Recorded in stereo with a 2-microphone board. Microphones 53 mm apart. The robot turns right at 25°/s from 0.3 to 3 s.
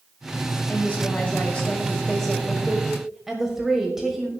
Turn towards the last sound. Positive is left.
turn(degrees=-165)